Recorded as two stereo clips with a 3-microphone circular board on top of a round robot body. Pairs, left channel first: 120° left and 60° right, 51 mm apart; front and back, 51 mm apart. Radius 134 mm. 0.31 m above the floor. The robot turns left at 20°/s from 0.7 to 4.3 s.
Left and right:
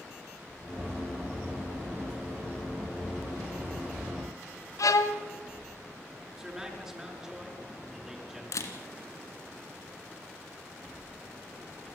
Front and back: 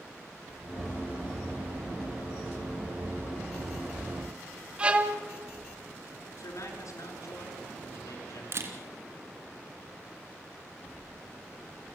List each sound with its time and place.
4.8 s a violin: 110° left, 1.0 m
6.4 s a man speaking: 20° left, 5.5 m
8.5 s a camera shutter: 145° left, 2 m